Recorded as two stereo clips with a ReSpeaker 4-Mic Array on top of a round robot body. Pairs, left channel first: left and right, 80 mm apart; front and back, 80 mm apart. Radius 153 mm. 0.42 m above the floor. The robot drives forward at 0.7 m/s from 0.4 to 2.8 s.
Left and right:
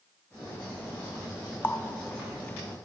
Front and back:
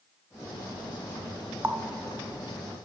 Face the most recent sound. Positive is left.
turn(degrees=170)